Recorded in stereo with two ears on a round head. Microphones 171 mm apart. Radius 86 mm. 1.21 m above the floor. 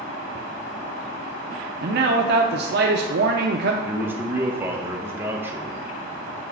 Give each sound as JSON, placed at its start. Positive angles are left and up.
{"t": 1.8, "sound": "a man speaking", "side_deg": -55, "distance_m": 0.6}
{"t": 3.9, "sound": "a man speaking", "side_deg": -10, "distance_m": 0.9}